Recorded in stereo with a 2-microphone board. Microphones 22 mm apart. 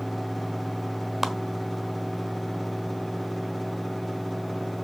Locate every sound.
1.2 s a clap: 15° right (ahead or behind), 1.1 m